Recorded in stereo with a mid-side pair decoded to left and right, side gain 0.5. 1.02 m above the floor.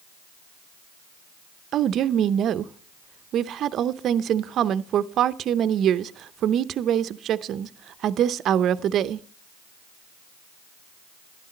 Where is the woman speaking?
60° right, 0.6 m.